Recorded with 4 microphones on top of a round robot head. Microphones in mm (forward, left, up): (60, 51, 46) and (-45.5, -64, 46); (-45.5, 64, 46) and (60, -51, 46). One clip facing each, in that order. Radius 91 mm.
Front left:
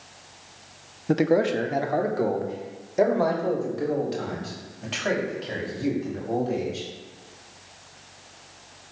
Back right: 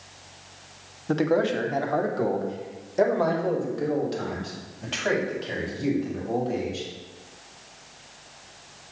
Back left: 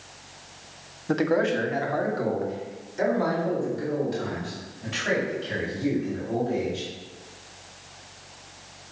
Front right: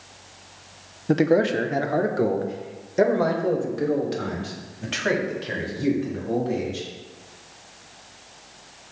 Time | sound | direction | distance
1.1 | a man speaking | 5° right | 0.9 m